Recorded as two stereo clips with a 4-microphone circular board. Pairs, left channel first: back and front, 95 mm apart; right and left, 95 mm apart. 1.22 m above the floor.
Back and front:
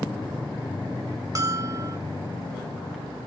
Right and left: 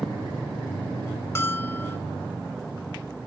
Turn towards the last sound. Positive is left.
turn(degrees=-40)